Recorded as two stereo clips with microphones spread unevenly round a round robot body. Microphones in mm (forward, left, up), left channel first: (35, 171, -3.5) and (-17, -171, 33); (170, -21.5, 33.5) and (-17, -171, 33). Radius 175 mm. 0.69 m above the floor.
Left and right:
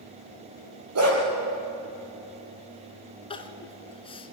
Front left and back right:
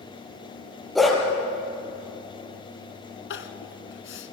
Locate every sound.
0.9 s a dog barking: 50° right, 6.5 m
3.3 s crying: 5° left, 1.5 m